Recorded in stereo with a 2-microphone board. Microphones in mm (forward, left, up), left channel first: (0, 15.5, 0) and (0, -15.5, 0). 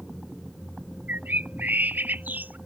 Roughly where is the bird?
Right.